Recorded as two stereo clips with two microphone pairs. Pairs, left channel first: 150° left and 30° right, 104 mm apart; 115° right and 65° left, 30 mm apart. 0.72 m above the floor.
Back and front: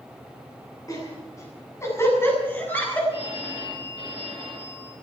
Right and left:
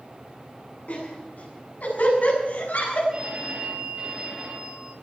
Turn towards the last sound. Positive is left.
turn(degrees=120)